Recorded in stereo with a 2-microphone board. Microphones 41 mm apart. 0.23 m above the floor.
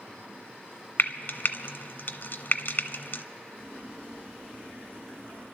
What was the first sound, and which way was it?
Frying, 60° left (ahead or behind).